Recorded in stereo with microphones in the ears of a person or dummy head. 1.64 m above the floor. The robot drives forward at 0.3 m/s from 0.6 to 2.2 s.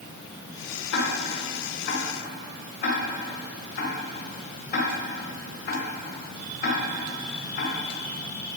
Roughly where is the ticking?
Left.